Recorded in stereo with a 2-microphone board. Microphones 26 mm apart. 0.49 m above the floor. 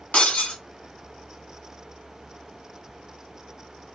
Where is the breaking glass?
60° left (ahead or behind), 2 m.